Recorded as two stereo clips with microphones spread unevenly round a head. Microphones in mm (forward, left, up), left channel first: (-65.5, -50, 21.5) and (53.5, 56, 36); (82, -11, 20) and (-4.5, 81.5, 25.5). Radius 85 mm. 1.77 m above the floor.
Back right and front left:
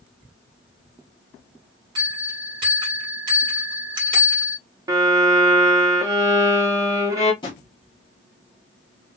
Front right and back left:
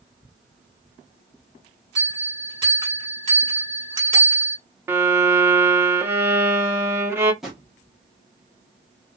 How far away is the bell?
About 1.9 m.